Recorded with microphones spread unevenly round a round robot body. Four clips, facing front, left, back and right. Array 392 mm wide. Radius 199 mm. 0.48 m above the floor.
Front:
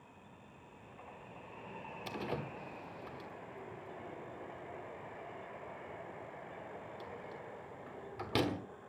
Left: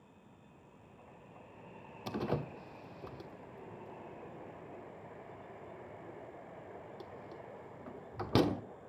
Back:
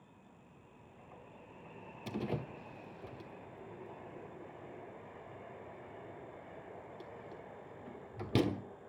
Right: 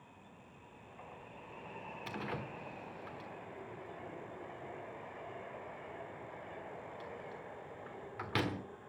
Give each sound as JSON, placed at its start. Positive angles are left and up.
{"t": 2.1, "sound": "a door slam", "azimuth_deg": 120, "distance_m": 1.2}